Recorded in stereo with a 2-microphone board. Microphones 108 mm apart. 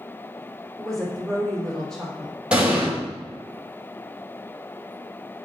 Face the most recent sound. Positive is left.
turn(degrees=-10)  # may be behind; listen again after turning